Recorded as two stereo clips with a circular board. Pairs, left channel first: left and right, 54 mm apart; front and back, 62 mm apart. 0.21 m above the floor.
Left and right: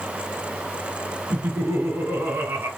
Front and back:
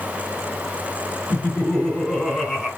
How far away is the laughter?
About 2 m.